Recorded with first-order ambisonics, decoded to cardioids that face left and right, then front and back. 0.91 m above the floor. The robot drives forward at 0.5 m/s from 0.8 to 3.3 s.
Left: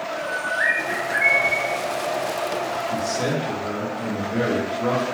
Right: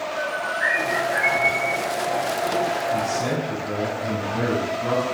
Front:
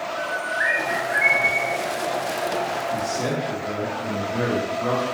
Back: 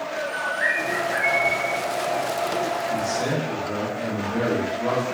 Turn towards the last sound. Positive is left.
turn(degrees=120)